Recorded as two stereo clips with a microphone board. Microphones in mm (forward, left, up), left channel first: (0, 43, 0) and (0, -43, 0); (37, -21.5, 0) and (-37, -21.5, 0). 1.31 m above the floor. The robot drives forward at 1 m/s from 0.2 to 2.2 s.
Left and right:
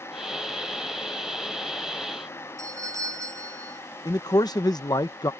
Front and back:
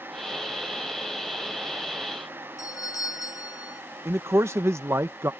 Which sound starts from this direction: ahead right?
A doorbell, at 2.6 s.